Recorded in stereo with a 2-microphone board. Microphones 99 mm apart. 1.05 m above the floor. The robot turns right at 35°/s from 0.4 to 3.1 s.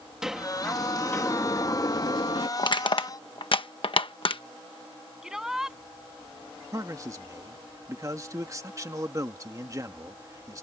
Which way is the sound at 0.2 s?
5° right.